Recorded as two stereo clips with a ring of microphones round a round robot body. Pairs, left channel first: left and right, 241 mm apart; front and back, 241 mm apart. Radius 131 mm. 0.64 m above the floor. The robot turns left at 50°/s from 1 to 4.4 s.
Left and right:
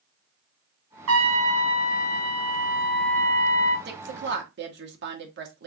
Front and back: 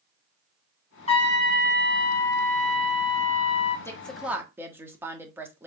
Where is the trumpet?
65° right, 3 m; by 3.8 s 165° left, 3 m.